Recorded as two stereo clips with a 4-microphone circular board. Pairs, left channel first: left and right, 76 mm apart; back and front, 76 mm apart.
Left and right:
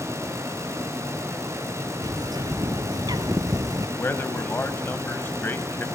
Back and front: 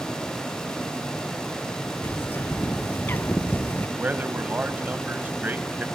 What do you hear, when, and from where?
2.0 s a bird: 115° right, 0.8 m
4.0 s a man speaking: 50° left, 1.4 m